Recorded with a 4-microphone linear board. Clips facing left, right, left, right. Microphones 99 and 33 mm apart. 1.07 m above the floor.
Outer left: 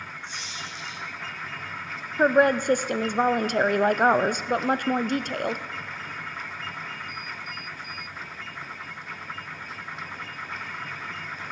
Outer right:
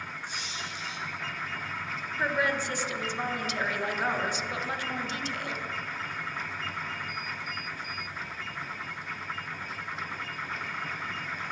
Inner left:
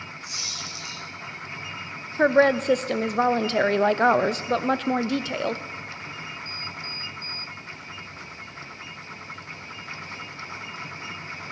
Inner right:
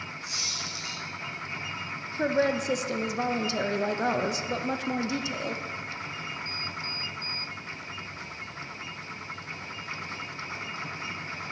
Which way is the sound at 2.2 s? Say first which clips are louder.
Outer left 10 dB, inner left 7 dB; 50° left (ahead or behind).